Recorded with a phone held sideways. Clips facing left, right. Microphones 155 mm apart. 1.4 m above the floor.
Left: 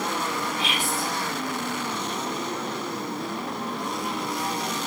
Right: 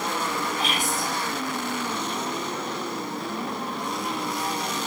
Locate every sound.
0.6 s whispering: 45° right (ahead or behind), 5.5 m